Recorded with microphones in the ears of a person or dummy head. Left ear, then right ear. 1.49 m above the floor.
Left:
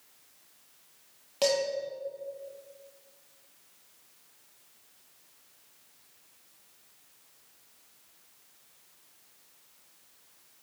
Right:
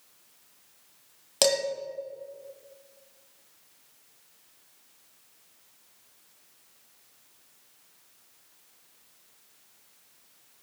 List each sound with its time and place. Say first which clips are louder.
1.4 s dishes clattering: right 3 dB; 40° right (ahead or behind), 1.0 m